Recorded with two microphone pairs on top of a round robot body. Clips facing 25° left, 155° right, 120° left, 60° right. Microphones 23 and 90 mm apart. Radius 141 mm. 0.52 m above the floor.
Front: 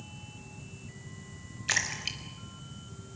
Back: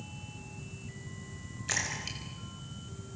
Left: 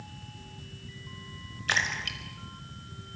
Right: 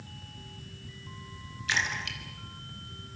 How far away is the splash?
About 4 m.